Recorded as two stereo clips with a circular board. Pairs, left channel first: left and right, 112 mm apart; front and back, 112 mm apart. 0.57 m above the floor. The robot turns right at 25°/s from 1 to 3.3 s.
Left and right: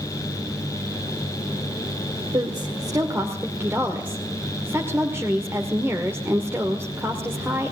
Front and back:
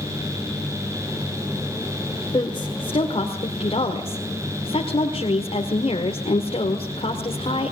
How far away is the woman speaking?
About 1.8 m.